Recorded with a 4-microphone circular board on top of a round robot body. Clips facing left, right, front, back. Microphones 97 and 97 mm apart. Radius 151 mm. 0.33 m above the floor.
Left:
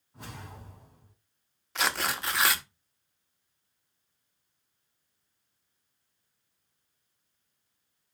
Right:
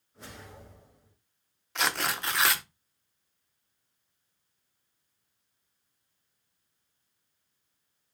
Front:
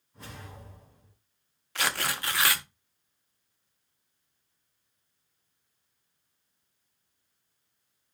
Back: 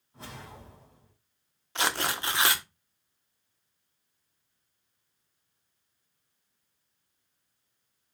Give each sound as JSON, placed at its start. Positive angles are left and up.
{"t": 0.1, "sound": "a whoosh", "azimuth_deg": 120, "distance_m": 2.5}
{"t": 1.8, "sound": "tearing paper", "azimuth_deg": 175, "distance_m": 1.1}